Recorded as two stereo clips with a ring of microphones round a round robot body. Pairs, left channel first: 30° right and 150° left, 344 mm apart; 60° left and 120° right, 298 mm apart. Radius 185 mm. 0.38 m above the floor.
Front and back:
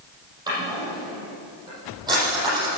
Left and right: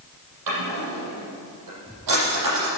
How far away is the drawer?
About 7 m.